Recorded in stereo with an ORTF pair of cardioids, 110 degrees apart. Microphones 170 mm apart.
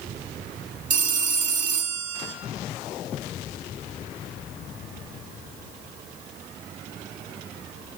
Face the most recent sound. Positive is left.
turn(degrees=-50)